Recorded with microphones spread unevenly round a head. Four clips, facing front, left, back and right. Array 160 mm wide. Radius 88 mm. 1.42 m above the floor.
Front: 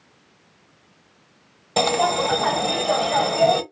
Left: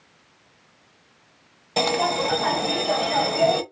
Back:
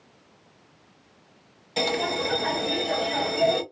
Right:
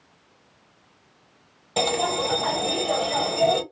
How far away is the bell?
About 0.9 m.